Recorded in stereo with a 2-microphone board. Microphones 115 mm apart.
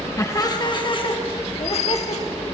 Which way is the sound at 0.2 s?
25° left (ahead or behind).